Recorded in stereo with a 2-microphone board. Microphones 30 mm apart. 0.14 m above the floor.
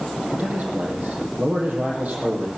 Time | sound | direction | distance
0.3 | a man speaking | 65° right (ahead or behind) | 6 m